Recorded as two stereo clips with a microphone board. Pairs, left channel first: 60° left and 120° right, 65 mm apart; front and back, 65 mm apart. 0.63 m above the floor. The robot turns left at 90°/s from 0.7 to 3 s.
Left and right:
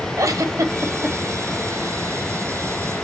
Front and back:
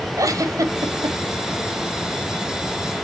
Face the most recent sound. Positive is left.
turn(degrees=0)